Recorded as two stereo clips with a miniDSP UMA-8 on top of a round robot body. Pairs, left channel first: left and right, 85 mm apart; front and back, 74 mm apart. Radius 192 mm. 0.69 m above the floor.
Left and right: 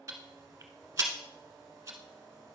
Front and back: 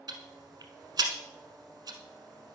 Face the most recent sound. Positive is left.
turn(degrees=-150)